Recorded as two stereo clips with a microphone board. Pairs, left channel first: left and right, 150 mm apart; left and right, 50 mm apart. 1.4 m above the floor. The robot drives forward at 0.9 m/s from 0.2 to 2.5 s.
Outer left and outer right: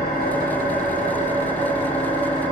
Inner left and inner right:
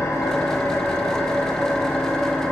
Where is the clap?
I don't hear a clap.